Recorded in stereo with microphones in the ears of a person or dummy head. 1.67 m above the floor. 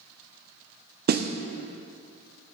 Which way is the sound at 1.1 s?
45° right (ahead or behind).